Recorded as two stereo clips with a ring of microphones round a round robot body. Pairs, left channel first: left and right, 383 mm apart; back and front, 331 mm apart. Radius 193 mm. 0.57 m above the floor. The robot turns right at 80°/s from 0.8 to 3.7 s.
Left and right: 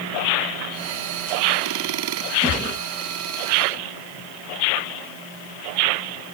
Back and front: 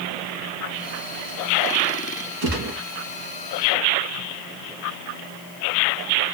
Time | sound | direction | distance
2.4 | a gunshot | 20° right | 1.9 m